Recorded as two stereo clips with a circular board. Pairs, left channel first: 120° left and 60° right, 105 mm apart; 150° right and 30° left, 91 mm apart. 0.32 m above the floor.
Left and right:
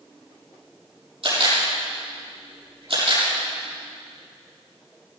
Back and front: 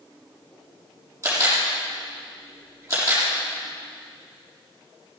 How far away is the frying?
I don't hear frying.